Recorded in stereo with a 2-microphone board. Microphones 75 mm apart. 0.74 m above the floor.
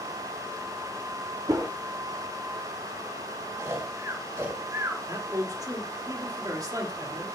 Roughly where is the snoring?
Right.